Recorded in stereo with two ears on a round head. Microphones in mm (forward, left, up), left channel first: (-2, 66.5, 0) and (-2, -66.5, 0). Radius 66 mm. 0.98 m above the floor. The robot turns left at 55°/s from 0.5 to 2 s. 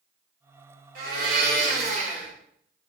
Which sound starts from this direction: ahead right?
A blender, at 0.9 s.